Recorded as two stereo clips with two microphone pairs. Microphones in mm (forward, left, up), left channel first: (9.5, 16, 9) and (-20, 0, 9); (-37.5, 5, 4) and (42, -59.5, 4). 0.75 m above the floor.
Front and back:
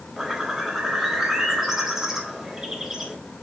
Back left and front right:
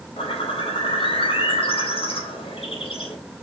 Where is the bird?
130° left, 3 m.